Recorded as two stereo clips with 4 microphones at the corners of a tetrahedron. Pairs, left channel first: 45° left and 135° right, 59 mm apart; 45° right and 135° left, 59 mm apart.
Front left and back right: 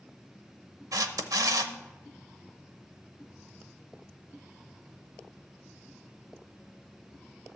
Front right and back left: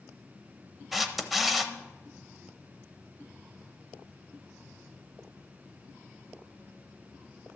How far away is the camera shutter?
About 0.7 m.